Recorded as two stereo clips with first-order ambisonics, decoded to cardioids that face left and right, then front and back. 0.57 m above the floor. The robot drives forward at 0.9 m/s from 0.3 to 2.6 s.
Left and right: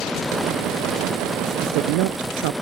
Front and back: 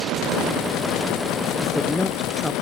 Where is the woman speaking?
80° right; by 2.5 s 85° right.